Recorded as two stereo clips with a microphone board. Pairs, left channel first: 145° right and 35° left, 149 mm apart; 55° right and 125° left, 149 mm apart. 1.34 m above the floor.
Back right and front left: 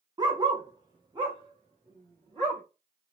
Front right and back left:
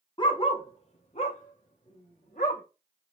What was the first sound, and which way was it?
A dog barking, 15° right.